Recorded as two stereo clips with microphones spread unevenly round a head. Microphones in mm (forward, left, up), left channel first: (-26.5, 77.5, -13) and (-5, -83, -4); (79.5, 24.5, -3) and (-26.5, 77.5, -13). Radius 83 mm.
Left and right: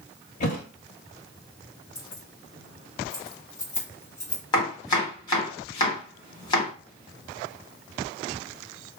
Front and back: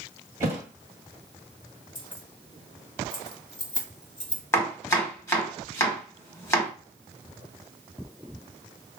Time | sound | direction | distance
0.4 | a thud | 90° left | 1.6 m
1.9 | keys jangling | 25° left | 1.3 m
4.5 | chopping | 35° left | 1.3 m